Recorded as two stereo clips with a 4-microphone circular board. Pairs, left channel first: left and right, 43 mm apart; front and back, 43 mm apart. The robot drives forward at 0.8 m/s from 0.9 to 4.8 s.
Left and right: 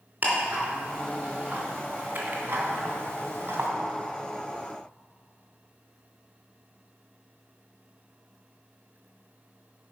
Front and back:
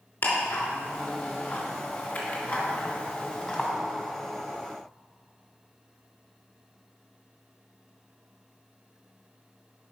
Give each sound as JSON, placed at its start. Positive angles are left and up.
{"t": 0.2, "sound": "ticking", "azimuth_deg": -35, "distance_m": 3.5}